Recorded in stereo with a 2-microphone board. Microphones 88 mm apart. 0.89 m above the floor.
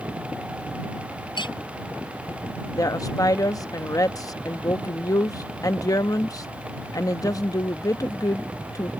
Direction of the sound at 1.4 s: 60° left (ahead or behind).